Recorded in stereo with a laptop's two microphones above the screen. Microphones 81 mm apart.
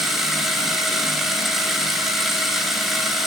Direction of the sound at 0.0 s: 5° right (ahead or behind).